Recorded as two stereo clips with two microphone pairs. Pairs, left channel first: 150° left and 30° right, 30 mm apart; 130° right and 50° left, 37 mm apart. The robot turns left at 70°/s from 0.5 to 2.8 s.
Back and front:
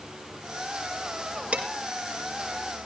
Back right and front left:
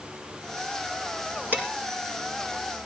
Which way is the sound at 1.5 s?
10° left.